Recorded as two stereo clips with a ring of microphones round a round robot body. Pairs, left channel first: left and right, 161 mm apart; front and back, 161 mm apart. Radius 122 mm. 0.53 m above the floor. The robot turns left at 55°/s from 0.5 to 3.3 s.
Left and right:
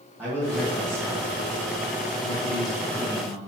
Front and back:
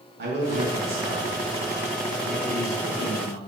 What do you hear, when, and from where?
0.2 s a man speaking: 170° right, 2.5 m; by 3.4 s 35° left, 2.5 m